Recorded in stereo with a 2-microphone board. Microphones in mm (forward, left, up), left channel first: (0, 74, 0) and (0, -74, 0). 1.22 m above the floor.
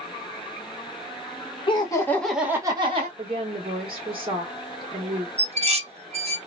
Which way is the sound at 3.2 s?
35° right (ahead or behind).